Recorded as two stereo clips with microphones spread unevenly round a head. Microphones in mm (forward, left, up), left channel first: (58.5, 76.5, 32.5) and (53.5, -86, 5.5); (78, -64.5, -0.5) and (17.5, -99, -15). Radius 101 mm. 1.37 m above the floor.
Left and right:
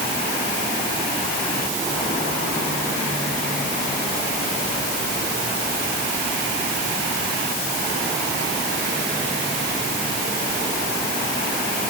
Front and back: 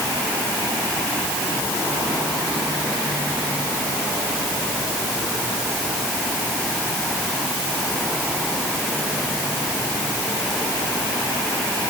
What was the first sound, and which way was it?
Only background noise.